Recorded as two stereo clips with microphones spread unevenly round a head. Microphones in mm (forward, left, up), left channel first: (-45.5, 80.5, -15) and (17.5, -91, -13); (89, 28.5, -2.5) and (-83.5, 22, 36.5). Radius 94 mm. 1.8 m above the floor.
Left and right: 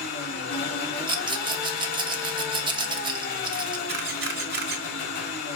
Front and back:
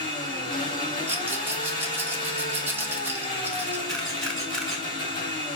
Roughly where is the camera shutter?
Right.